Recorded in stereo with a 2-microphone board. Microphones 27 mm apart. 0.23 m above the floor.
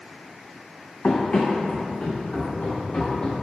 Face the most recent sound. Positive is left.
turn(degrees=45)  # may be behind; listen again after turning